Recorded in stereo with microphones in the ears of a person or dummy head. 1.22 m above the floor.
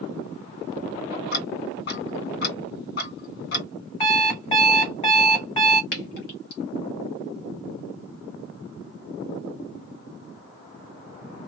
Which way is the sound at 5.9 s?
65° left (ahead or behind).